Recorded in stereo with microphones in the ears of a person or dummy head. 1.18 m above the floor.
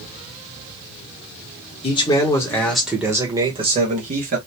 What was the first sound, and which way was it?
A man speaking, 20° left (ahead or behind).